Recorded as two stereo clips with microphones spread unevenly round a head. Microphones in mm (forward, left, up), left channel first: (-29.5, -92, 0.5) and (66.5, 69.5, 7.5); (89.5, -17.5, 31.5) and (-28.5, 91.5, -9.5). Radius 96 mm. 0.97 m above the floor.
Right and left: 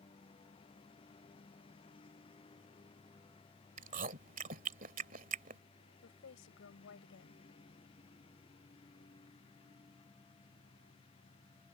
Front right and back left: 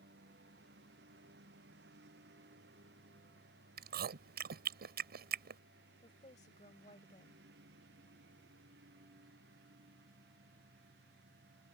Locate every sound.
0.0 s a lawn mower: 175° left
3.8 s chewing: 110° left
6.0 s a woman speaking: 100° right